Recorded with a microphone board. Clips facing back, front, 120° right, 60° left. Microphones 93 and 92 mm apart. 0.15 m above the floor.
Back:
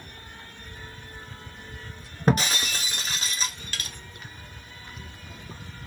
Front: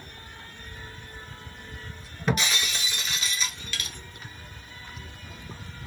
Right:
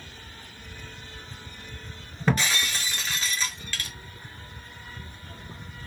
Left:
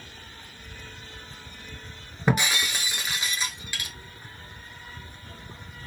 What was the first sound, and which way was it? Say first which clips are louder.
Breaking glass: back 3 dB, left 1 dB; 135° left.